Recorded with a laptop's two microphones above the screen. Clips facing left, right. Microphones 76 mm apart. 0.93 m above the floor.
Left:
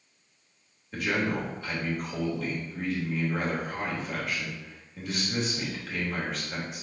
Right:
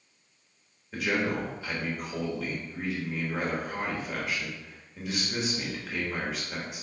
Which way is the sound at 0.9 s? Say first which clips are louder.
Even; 5° right (ahead or behind).